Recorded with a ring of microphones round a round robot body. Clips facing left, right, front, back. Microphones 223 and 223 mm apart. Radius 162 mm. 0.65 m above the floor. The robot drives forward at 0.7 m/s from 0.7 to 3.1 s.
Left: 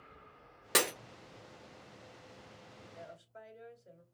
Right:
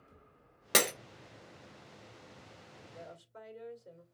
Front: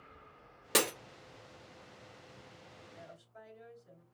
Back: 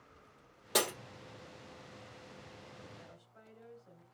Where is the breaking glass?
40° right, 1.7 m.